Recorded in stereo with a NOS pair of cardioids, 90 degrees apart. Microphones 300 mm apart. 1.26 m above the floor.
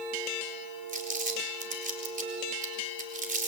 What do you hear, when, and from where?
0.9 s crumpling: 25° right, 4.5 m